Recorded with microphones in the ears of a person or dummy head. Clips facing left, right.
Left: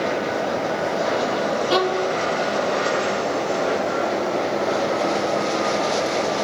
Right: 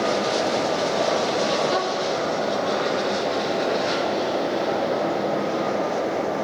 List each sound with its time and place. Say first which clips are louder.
1.7 s a violin: left 3 dB; 45° left (ahead or behind)